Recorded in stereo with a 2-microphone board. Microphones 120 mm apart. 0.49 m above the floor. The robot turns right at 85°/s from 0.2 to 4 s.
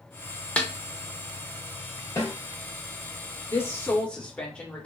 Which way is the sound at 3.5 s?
25° left (ahead or behind).